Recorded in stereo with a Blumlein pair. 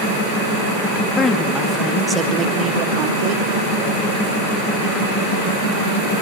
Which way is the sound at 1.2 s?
20° left.